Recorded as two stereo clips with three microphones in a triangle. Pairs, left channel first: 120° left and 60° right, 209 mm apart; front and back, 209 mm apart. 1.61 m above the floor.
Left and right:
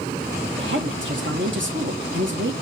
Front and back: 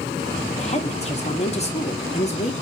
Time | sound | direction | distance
0.6 | a woman speaking | 55° right | 1.1 m